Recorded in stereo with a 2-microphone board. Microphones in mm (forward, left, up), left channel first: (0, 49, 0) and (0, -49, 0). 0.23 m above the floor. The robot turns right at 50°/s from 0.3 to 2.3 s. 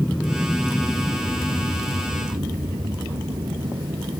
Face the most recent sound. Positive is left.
turn(degrees=-70)  # may be behind; listen again after turning